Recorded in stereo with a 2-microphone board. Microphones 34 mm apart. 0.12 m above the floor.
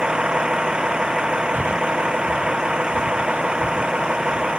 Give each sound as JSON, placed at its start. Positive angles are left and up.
{"t": 0.0, "sound": "a vehicle", "side_deg": -25}
{"t": 1.5, "sound": "breathing", "side_deg": -60}